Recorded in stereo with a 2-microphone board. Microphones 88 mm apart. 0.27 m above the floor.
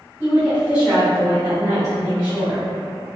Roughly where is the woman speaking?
Centre.